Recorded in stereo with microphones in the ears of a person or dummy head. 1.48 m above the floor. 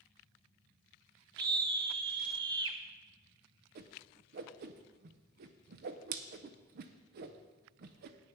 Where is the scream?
25° right (ahead or behind), 1.1 m.